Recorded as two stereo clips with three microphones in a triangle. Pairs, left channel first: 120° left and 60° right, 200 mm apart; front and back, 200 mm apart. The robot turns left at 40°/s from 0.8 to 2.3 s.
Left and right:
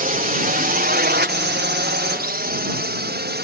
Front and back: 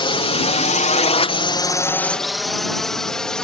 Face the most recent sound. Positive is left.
turn(degrees=-85)